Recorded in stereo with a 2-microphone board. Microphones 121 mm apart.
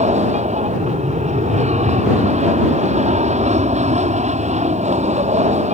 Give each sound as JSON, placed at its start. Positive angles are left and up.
{"t": 0.0, "sound": "an aircraft", "side_deg": -75}